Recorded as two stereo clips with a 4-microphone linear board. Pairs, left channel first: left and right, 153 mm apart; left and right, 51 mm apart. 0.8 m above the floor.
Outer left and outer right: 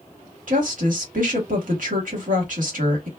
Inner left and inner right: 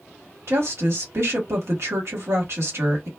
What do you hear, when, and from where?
0.5 s a woman speaking: 65° right (ahead or behind), 1.3 m